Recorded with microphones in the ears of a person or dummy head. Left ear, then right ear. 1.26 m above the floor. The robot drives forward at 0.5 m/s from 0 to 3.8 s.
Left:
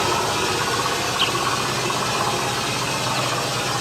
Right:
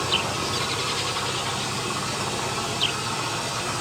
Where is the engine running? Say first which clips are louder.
Left 4 dB; 55° left (ahead or behind), 4.5 m; by 3.8 s 40° left (ahead or behind), 6 m.